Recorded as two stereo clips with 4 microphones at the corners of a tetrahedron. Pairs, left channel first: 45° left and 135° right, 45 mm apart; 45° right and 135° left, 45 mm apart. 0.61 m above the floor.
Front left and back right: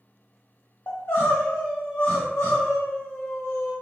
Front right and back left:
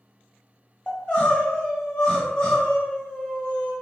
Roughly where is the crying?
Ahead.